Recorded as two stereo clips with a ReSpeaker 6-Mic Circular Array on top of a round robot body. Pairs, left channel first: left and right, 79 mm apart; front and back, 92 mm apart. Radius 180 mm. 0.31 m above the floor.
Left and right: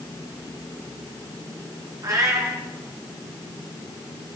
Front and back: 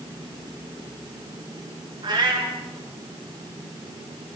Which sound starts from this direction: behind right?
A cat meowing, at 2.0 s.